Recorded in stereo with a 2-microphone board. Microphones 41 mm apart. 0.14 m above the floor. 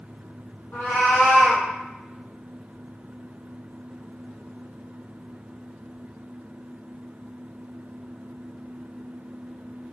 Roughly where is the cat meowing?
Left.